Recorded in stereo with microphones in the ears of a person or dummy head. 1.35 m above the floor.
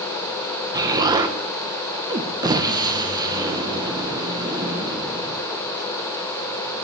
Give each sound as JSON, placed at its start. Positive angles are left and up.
{"t": 0.7, "sound": "an explosion", "side_deg": -25, "distance_m": 1.1}